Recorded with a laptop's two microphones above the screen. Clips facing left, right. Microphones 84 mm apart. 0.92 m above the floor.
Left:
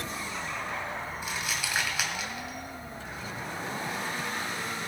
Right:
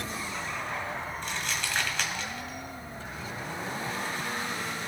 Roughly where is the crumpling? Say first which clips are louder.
Even; centre.